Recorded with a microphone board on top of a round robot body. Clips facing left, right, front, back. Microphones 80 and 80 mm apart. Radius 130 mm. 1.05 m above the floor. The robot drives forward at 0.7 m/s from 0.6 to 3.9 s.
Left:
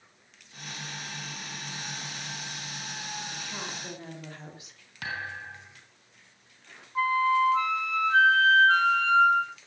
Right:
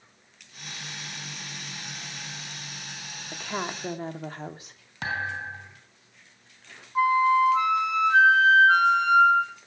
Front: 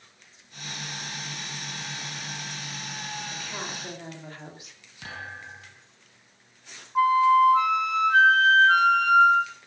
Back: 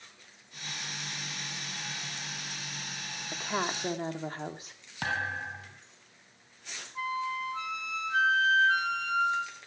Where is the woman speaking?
125° right, 3 m; by 4.8 s 130° right, 3 m.